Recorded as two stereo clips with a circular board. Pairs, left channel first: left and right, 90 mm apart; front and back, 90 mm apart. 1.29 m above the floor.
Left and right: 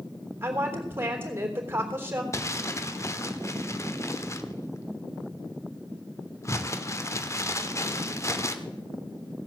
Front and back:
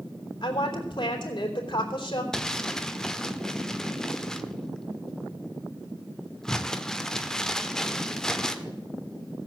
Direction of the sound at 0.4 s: 25° right.